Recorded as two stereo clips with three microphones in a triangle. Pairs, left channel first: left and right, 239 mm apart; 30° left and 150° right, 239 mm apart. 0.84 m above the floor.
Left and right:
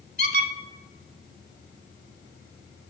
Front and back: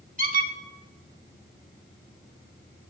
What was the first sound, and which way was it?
A squeak, 110° right.